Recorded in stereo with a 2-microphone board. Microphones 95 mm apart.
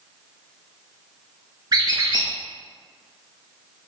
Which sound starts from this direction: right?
A squeak, at 1.7 s.